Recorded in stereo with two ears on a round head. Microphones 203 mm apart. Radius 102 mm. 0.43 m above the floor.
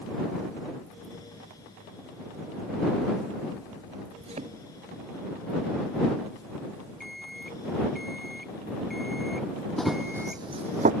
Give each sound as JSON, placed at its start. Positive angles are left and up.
{"t": 4.2, "sound": "a thud", "side_deg": -30}
{"t": 7.0, "sound": "an alarm clock", "side_deg": 0}
{"t": 9.8, "sound": "running footsteps", "side_deg": 5}